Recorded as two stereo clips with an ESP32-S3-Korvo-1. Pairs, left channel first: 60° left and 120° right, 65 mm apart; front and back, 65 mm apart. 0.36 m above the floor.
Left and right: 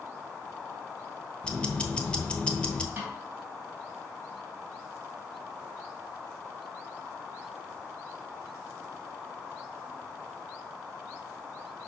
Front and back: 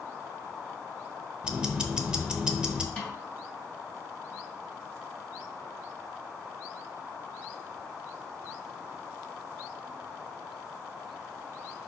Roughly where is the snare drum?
Ahead right.